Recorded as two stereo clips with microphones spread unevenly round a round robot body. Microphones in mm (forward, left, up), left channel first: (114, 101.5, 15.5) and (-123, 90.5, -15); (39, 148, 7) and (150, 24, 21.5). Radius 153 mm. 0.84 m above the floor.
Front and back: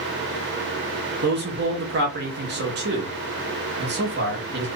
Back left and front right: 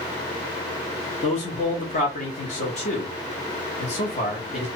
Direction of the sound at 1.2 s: 170° left.